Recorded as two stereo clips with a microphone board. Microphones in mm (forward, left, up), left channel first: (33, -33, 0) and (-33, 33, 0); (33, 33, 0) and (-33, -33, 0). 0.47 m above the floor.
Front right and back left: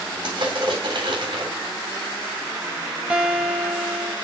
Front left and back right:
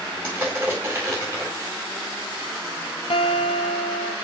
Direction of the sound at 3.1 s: 55° left.